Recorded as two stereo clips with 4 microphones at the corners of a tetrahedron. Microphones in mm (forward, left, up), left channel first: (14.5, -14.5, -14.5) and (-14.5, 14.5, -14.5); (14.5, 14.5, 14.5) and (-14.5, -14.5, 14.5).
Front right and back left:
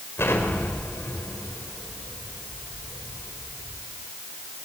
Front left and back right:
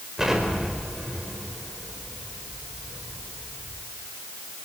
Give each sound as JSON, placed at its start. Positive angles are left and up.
{"t": 0.2, "sound": "an explosion", "azimuth_deg": -60, "distance_m": 4.5}